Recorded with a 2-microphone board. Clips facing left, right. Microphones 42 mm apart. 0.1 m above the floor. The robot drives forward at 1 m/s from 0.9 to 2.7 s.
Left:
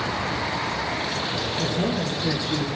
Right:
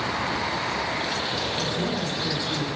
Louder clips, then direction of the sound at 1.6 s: Left 2 dB; 40° left (ahead or behind).